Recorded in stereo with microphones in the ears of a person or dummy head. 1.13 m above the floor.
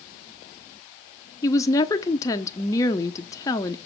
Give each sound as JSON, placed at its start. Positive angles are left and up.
{"t": 1.4, "sound": "a woman speaking", "side_deg": 20, "distance_m": 0.7}